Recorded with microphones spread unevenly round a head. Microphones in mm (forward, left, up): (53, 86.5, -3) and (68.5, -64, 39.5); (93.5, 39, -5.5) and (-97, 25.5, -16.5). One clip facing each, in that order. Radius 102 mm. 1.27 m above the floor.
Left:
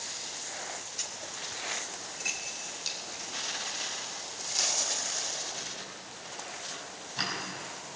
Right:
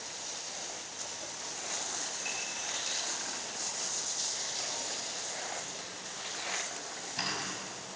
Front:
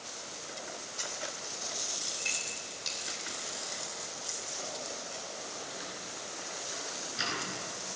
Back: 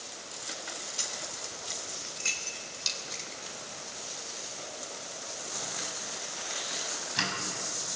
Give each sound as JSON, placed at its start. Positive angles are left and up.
{"t": 1.0, "sound": "keys jangling", "azimuth_deg": 135, "distance_m": 3.0}